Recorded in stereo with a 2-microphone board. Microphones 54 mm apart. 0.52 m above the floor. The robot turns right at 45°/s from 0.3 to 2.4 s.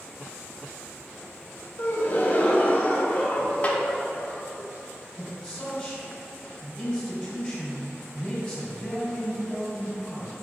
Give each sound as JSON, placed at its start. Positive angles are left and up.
{"t": 1.8, "sound": "a gasp", "side_deg": 50, "distance_m": 1.2}
{"t": 3.6, "sound": "a snare drum", "side_deg": 30, "distance_m": 0.9}
{"t": 5.2, "sound": "a man speaking", "side_deg": 20, "distance_m": 2.0}